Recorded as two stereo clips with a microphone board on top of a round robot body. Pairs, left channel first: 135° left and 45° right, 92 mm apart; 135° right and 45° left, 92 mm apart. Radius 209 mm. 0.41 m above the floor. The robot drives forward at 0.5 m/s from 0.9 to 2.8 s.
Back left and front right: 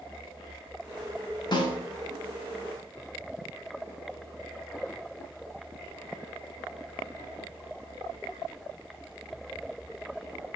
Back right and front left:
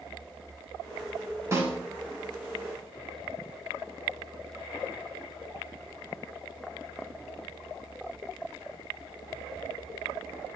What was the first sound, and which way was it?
A snare drum, 100° left.